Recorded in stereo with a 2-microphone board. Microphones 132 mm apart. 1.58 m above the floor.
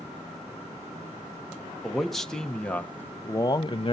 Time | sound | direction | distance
1.8 | a man speaking | centre (ahead or behind) | 1.4 m